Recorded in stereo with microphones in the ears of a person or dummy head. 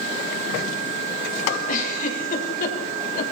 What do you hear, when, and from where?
1.7 s a giggle: 45° left (ahead or behind), 5.5 m